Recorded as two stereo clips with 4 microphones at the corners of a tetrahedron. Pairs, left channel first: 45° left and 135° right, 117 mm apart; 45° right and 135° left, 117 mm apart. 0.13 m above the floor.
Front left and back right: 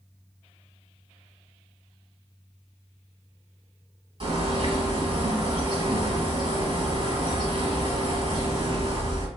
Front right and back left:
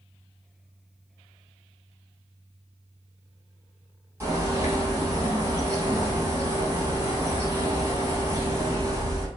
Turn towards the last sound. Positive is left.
turn(degrees=-160)